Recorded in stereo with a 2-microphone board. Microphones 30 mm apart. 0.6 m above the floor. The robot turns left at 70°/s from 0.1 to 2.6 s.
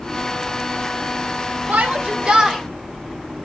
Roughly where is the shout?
Right.